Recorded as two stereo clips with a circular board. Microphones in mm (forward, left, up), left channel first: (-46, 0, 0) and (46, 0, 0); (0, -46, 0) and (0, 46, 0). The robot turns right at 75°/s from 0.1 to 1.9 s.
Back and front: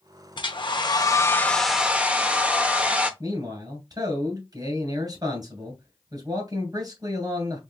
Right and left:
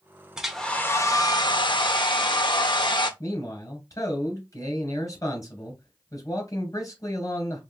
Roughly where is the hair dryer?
Behind.